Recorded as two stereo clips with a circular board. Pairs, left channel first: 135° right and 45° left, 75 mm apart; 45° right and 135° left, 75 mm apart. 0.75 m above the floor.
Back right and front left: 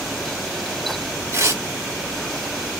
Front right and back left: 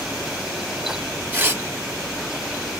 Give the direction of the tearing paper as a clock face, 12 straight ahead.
9 o'clock.